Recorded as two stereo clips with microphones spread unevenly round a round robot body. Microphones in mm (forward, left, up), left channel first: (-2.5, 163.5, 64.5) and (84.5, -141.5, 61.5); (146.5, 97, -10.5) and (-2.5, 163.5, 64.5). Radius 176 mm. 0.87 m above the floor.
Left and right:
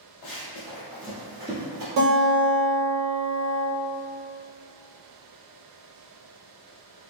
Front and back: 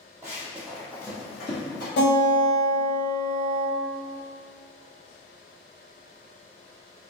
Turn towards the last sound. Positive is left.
turn(degrees=-35)